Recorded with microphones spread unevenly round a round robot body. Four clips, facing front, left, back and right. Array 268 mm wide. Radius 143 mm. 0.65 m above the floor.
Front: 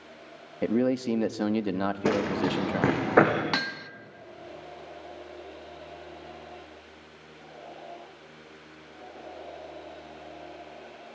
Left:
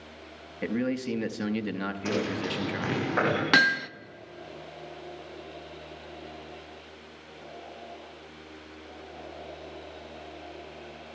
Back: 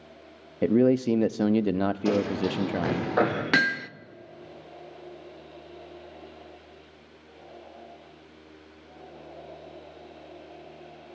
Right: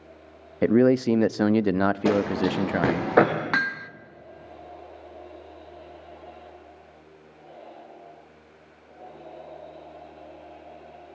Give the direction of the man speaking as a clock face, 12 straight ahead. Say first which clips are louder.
Right 11 dB, back 4 dB; 4 o'clock.